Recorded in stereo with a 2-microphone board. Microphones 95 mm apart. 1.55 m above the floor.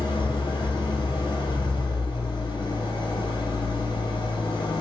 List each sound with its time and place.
0.0 s an engine running: 70° left (ahead or behind), 4.5 m